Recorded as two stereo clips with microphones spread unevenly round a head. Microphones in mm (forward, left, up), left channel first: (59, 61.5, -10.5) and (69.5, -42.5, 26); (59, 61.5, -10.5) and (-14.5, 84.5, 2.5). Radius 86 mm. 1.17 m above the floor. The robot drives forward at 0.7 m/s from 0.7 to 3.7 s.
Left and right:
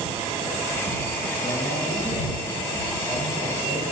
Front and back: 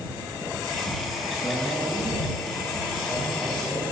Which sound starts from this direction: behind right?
A man speaking, at 1.4 s.